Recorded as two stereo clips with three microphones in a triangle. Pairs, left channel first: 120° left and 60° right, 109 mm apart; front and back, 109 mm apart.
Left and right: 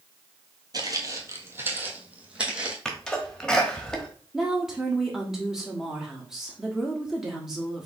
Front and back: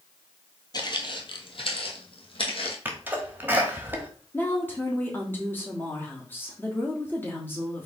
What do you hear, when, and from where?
0.7 s footsteps: 30° right, 0.8 m; by 2.8 s 20° left, 1.5 m
2.9 s a sneeze: 175° right, 1.0 m
4.3 s a woman speaking: 20° left, 1.1 m